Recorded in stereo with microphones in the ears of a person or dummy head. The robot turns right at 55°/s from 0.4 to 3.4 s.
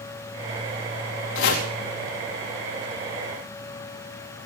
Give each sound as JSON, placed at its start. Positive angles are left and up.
{"t": 1.4, "sound": "chopping", "side_deg": 70, "distance_m": 2.5}